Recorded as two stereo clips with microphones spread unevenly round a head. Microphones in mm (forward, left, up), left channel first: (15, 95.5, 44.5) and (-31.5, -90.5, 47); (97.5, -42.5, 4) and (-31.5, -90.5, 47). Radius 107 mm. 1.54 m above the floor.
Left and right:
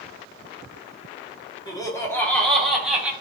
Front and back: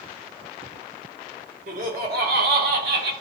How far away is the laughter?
About 1.9 m.